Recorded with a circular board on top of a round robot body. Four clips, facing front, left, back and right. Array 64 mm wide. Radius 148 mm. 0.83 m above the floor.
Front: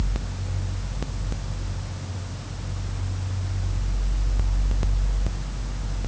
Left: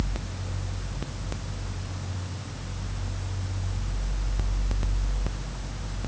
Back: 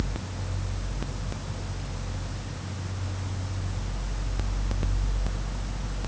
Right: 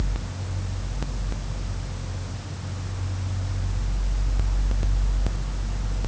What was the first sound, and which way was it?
Only background noise.